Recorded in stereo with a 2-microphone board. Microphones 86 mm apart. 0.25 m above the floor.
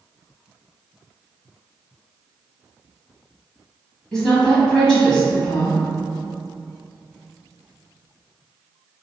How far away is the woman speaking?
About 1.3 m.